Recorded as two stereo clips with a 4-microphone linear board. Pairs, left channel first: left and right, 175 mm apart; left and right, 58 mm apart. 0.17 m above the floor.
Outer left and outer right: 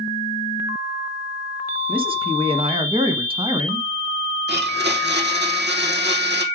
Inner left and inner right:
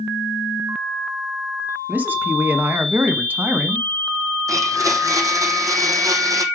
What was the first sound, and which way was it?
A man speaking, 30° right (ahead or behind).